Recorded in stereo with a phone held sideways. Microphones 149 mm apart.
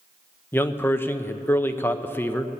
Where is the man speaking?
15° left (ahead or behind), 0.6 m.